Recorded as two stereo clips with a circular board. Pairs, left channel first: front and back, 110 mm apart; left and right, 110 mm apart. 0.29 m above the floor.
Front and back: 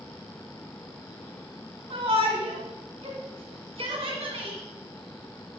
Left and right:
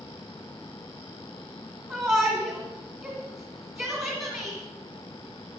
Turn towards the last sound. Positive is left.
turn(degrees=-155)